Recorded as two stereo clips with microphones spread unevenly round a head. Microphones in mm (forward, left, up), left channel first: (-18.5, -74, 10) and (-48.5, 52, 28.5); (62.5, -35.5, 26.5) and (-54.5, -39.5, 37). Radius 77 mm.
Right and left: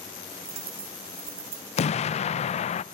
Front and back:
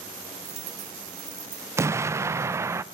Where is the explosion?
110° right, 0.7 m.